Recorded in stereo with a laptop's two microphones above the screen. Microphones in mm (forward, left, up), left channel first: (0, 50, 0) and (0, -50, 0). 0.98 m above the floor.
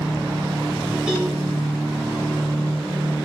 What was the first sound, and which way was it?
A cowbell, 10° right (ahead or behind).